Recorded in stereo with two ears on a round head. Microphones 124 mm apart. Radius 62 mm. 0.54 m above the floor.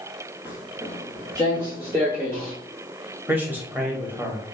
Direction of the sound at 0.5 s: 10° right (ahead or behind).